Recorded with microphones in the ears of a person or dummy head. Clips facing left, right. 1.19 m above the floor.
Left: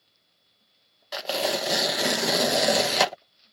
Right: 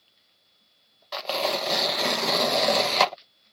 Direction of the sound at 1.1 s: 10° left (ahead or behind).